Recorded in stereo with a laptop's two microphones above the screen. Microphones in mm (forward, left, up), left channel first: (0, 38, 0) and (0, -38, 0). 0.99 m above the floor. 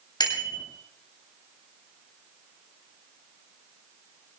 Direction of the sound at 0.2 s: 70° left (ahead or behind).